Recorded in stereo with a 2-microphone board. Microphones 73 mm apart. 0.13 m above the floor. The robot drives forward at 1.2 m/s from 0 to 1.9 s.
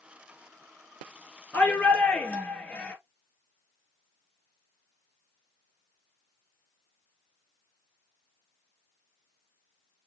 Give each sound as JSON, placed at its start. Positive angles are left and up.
{"t": 1.5, "sound": "a shout", "side_deg": 20, "distance_m": 2.5}